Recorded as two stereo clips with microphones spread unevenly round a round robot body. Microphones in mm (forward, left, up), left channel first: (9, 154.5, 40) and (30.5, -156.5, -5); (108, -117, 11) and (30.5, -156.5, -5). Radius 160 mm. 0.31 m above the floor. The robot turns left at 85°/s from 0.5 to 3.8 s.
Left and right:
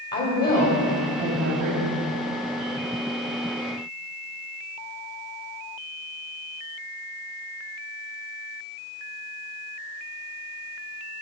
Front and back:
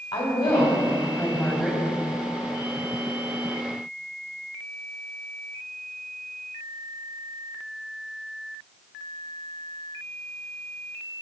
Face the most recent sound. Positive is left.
turn(degrees=115)